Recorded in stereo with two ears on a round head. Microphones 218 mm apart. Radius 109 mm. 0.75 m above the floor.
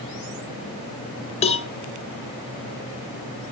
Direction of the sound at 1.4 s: 25° left (ahead or behind).